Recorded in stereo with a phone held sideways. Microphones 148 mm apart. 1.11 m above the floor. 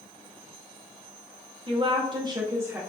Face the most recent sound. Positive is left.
turn(degrees=-15)  # may be behind; listen again after turning